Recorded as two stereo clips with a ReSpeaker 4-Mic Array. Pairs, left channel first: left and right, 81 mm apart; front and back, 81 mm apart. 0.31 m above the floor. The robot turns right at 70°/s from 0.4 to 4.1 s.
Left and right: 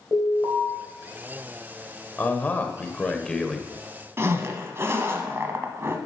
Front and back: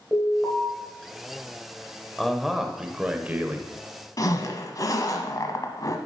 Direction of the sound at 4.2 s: 35° right.